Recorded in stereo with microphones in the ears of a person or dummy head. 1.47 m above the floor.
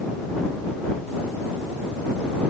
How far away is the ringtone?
No ringtone in this recording.